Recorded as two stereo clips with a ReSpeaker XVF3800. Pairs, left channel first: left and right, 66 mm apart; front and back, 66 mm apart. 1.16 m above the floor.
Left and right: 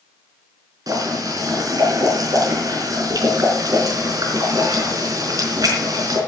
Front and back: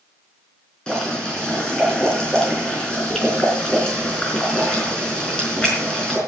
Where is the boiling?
75° right, 4.5 m.